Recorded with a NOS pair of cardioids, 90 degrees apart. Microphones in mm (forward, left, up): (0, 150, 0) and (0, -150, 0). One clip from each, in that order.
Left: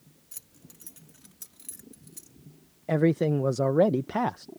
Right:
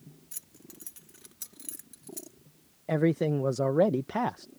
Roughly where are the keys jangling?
Ahead.